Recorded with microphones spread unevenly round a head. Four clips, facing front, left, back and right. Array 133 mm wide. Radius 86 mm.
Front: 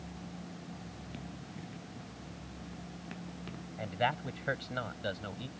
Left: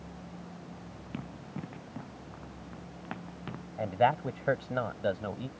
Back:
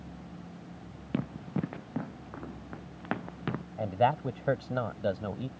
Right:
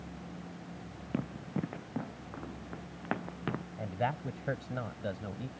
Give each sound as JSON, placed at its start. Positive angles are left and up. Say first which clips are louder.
{"t": 1.1, "sound": "running footsteps", "louder": "right 6 dB, back 17 dB", "azimuth_deg": -145}
{"t": 3.8, "sound": "a man speaking", "louder": "left 9 dB, back 6 dB", "azimuth_deg": 125}